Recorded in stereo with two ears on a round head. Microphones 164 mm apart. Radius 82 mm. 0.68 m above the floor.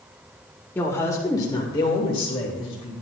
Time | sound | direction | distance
0.8 | a woman speaking | 10° left (ahead or behind) | 1.5 m